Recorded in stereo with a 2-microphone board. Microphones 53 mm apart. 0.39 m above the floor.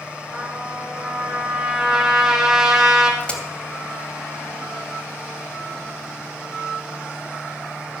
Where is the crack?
20° left (ahead or behind), 2.5 m.